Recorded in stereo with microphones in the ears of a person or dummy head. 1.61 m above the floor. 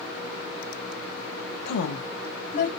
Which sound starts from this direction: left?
A woman speaking, at 1.6 s.